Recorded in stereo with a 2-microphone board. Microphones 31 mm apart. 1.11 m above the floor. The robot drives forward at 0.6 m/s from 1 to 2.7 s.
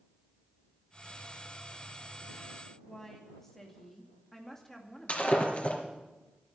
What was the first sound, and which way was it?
A woman speaking, 15° left (ahead or behind).